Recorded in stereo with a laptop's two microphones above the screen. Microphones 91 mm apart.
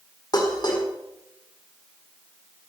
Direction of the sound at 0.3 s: 50° left (ahead or behind).